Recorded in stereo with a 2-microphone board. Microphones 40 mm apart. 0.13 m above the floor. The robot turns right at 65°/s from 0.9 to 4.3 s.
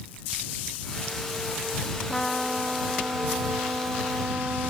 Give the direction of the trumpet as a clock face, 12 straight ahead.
7 o'clock.